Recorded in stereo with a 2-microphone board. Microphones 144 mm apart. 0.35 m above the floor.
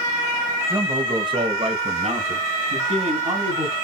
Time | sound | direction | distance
0.7 | a man speaking | 20° right (ahead or behind) | 1.3 m